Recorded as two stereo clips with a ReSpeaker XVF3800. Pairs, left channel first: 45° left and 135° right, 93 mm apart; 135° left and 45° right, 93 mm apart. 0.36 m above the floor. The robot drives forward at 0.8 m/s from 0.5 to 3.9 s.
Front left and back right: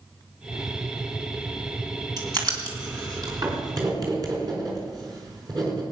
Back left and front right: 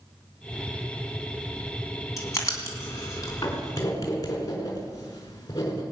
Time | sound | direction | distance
2.2 | writing | 175° right | 3 m